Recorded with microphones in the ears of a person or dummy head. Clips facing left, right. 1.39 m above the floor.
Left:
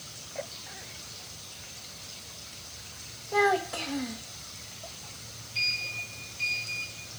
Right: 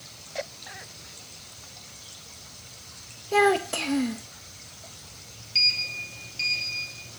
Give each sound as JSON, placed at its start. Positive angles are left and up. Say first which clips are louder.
{"t": 3.3, "sound": "a child speaking", "louder": "right 4 dB", "side_deg": -50, "distance_m": 1.0}
{"t": 5.5, "sound": "a sliding door", "louder": "right 2 dB", "side_deg": -85, "distance_m": 2.5}